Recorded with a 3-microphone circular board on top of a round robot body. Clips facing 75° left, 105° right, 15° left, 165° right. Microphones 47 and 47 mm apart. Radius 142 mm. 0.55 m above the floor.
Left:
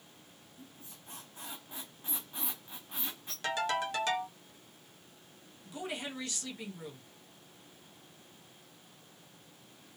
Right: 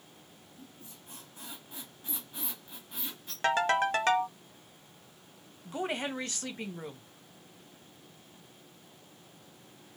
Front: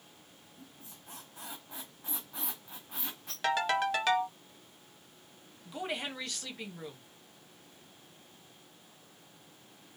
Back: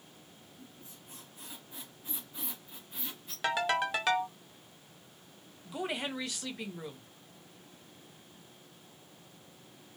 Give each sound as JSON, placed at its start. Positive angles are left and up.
{"t": 0.6, "sound": "a squeak", "azimuth_deg": 10, "distance_m": 0.9}
{"t": 3.4, "sound": "a ringtone", "azimuth_deg": -80, "distance_m": 0.8}
{"t": 5.7, "sound": "a woman speaking", "azimuth_deg": -80, "distance_m": 0.8}